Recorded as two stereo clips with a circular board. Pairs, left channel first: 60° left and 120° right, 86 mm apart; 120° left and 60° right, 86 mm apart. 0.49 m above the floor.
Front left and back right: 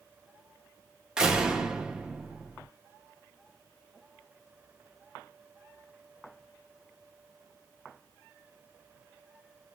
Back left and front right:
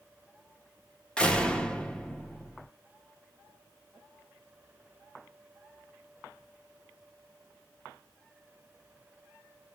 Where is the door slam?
175° left, 0.8 m.